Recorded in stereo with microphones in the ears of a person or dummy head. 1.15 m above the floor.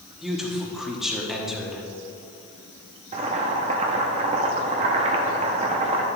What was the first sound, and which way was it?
A man speaking, centre (ahead or behind).